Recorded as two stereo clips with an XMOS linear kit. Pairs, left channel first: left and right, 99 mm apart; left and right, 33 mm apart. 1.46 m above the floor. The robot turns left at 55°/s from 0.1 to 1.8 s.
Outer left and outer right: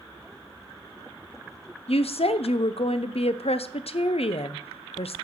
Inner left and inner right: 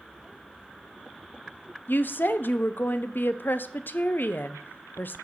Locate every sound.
1.9 s a woman speaking: 80° left, 0.5 m